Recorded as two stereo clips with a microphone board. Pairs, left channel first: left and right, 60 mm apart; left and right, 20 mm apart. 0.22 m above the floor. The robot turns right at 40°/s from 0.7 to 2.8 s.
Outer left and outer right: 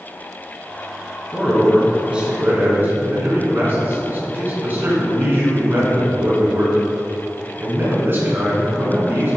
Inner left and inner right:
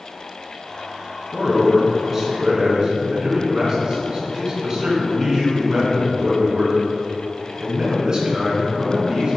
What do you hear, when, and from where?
1.3 s a man speaking: 165° left, 2.5 m; by 9.4 s 135° right, 2.5 m